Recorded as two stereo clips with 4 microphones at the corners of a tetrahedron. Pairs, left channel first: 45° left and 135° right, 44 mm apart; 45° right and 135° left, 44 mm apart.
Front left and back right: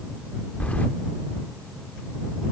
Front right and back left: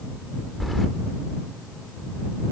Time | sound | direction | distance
0.6 | keys jangling | 45° left | ?